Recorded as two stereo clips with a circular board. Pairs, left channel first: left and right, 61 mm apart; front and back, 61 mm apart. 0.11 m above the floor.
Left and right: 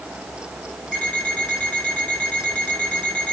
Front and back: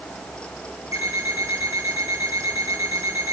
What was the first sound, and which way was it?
An alarm clock, 165° left.